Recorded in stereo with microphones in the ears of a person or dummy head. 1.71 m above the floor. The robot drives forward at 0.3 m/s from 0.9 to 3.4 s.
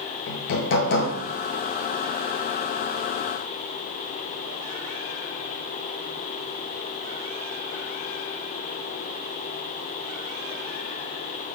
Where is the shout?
No shout in this recording.